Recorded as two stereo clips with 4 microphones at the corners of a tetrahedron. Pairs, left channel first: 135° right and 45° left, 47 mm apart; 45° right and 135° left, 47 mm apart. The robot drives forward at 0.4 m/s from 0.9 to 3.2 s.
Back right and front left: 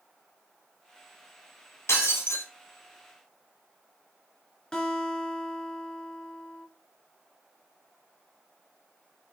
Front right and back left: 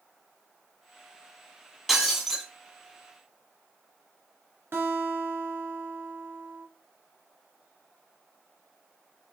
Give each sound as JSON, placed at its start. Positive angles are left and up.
{"t": 1.9, "sound": "breaking glass", "azimuth_deg": -145, "distance_m": 1.8}
{"t": 4.7, "sound": "a guitar", "azimuth_deg": 155, "distance_m": 1.7}